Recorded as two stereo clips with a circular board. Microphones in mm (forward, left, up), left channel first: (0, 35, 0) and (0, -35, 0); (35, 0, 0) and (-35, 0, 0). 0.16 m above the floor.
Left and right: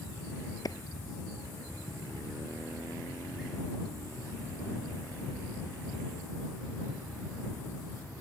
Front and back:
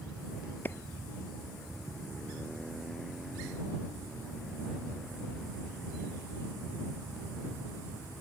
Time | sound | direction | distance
0.7 | a clap | 60° left | ?